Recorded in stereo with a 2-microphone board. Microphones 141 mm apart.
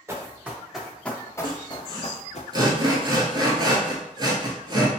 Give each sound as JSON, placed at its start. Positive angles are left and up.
{"t": 0.1, "sound": "running footsteps", "side_deg": -20, "distance_m": 1.0}
{"t": 1.4, "sound": "sawing", "side_deg": -35, "distance_m": 0.8}